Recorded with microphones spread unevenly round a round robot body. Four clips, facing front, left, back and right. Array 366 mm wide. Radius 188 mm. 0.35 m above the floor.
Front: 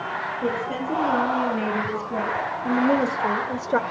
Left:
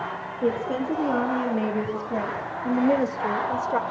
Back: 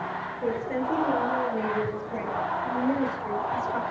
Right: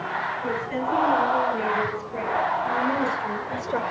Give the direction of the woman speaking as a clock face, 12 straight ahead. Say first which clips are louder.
Left 2 dB, even; 10 o'clock.